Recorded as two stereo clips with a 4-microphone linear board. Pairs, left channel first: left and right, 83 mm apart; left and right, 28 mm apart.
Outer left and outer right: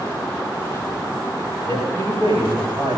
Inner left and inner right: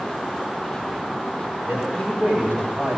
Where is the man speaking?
80° right, 9 m; by 3.0 s 85° right, 10 m.